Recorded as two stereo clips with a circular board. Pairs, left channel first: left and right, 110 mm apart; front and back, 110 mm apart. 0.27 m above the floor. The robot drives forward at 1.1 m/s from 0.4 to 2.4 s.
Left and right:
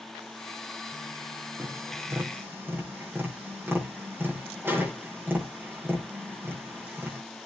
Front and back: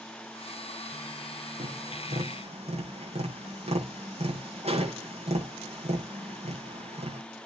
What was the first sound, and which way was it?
Tapping, 160° right.